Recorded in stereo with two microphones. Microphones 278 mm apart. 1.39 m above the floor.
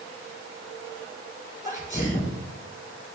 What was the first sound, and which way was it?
A sneeze, 30° left (ahead or behind).